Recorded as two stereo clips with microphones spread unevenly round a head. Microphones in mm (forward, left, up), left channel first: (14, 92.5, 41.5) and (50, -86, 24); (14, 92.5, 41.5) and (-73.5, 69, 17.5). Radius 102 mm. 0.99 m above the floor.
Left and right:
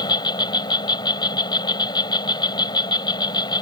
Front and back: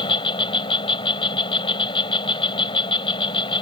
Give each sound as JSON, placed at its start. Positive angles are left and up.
{"t": 0.0, "sound": "an insect", "azimuth_deg": 35}